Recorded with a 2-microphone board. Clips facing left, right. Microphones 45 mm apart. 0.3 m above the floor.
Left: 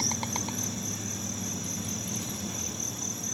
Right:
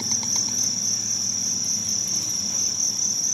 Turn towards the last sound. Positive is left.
turn(degrees=20)  # may be behind; listen again after turning